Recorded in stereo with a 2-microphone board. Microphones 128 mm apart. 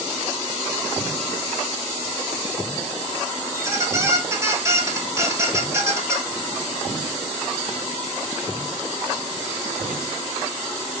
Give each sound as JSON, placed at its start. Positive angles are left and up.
{"t": 3.5, "sound": "a squeak", "side_deg": -20, "distance_m": 0.8}